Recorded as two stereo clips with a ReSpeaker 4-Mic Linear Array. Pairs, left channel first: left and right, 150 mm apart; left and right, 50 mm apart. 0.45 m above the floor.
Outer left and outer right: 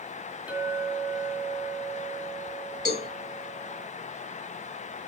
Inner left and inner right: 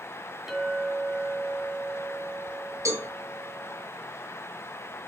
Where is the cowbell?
75° right (ahead or behind), 3.5 m.